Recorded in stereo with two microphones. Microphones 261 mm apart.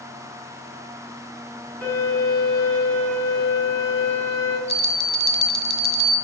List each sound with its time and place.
1.8 s a violin: 10° left (ahead or behind), 3.5 m
4.7 s a bell: 40° left (ahead or behind), 1.3 m